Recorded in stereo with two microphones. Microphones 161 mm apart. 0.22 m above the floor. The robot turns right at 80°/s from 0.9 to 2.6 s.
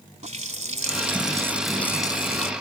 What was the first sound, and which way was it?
A running tap, 65° right.